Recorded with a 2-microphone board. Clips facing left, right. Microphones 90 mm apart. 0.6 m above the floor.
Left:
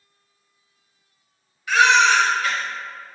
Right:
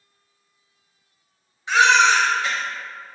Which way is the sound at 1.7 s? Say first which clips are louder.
Even; 25° right (ahead or behind).